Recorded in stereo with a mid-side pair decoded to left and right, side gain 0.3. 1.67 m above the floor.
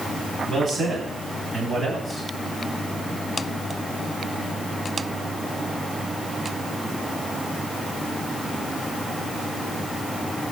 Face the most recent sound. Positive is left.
turn(degrees=-65)